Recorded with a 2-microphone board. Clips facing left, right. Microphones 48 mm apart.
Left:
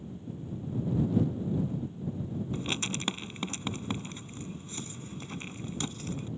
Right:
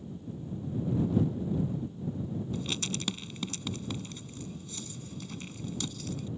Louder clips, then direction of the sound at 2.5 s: Left 1 dB; 35° left (ahead or behind).